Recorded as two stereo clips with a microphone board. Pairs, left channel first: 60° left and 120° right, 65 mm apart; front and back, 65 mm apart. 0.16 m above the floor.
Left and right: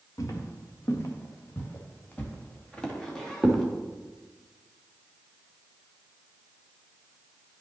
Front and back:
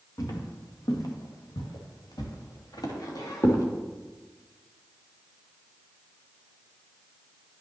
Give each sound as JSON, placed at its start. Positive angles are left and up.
{"t": 0.2, "sound": "footsteps", "azimuth_deg": 25, "distance_m": 2.0}